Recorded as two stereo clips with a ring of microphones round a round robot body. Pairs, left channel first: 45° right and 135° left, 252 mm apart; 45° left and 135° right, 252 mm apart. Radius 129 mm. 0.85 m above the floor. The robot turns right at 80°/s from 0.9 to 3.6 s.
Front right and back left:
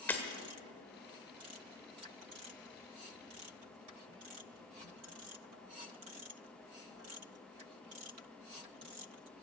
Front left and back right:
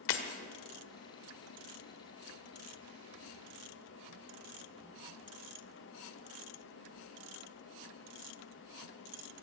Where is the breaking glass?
40° left, 1.4 m.